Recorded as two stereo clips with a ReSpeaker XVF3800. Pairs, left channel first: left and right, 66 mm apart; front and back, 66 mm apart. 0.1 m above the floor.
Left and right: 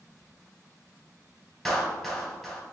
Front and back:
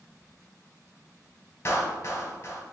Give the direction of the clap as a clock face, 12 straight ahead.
12 o'clock.